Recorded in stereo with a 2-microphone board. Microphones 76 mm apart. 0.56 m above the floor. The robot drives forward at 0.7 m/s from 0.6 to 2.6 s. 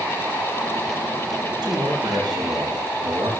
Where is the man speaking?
75° right (ahead or behind), 3.5 m; by 3.3 s 70° right (ahead or behind), 3.5 m.